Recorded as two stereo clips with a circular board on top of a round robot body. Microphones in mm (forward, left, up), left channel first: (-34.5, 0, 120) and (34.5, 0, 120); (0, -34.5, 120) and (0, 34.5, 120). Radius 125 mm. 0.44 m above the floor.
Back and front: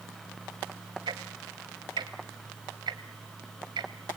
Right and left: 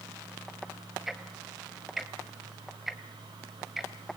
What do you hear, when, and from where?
1.1 s ticking: straight ahead, 1.3 m